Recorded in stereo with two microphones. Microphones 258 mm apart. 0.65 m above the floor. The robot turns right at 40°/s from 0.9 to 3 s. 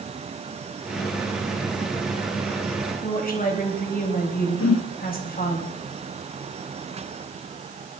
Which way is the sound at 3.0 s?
35° left (ahead or behind).